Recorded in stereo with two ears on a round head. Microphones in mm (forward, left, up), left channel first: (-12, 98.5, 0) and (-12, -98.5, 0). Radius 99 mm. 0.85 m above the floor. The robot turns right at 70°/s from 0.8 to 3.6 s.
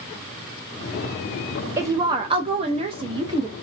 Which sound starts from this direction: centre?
A woman speaking, at 1.8 s.